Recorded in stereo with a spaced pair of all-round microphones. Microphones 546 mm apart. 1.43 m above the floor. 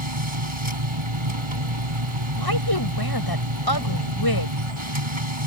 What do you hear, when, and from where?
0.0 s a machine running: 60° right (ahead or behind)
2.4 s a woman speaking: 40° left (ahead or behind)